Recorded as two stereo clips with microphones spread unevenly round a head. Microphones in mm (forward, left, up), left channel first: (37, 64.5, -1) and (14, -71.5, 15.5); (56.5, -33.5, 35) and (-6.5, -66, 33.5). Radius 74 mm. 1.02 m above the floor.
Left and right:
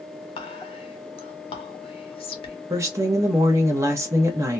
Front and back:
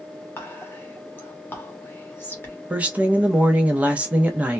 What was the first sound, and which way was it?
Whispering, 75° left.